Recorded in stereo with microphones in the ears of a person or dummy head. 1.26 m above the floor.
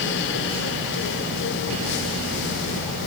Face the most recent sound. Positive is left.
No sound to turn to.